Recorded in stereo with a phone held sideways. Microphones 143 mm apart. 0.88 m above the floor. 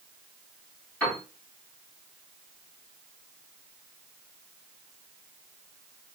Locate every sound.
1.0 s a piano: 10° left (ahead or behind), 1.7 m